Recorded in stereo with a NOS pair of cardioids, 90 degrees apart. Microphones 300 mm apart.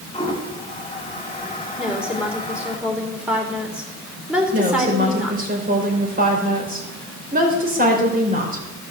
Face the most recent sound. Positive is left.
turn(degrees=-30)